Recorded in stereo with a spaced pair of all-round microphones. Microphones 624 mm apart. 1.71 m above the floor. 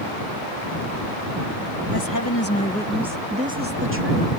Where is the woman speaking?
40° left (ahead or behind); by 4.3 s 25° right (ahead or behind).